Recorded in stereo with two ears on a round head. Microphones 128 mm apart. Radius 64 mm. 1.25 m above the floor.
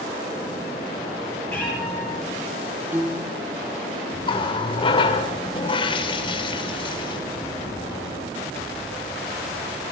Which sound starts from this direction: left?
A running tap, at 4.2 s.